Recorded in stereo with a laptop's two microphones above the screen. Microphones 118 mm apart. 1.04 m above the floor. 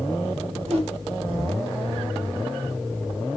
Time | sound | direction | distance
0.7 | a whoosh | 60° right (ahead or behind) | 0.8 m